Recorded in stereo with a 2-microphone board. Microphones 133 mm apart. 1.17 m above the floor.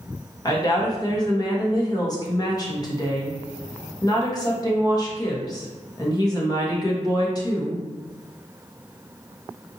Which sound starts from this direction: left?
A woman speaking, at 0.5 s.